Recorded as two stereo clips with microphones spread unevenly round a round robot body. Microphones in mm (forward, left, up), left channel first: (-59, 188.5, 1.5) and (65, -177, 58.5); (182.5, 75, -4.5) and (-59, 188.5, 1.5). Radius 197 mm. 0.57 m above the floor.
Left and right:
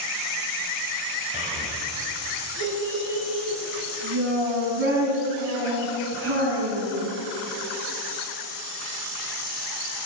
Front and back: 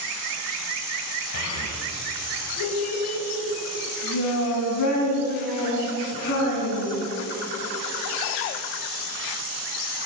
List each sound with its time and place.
1.3 s a child speaking: straight ahead, 1.8 m; by 7.1 s 10° right, 5 m